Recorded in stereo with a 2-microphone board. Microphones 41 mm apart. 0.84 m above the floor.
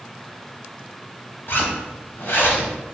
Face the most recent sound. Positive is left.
turn(degrees=65)  # may be behind; listen again after turning